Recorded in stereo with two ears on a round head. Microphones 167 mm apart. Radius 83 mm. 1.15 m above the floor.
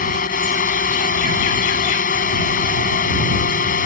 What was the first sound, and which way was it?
A drone, 45° left (ahead or behind).